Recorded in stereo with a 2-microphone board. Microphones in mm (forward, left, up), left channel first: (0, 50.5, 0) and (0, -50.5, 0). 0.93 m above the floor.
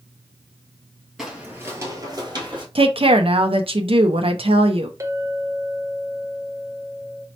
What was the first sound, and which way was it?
Footsteps, 5° right (ahead or behind).